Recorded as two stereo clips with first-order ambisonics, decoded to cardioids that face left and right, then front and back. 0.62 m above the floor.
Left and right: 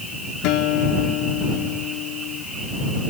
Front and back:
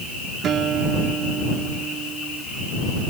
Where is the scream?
I don't hear a scream.